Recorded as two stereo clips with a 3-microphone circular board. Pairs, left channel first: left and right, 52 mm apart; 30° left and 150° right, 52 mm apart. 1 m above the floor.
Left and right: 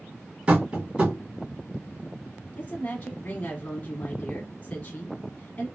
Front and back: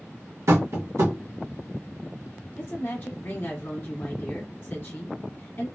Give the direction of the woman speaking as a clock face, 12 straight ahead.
11 o'clock.